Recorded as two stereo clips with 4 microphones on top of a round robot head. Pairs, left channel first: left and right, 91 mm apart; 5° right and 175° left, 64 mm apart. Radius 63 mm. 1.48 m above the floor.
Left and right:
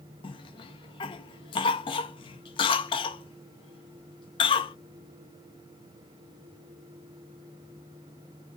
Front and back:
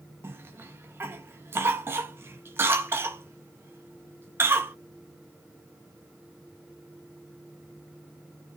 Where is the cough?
120° left, 0.7 m.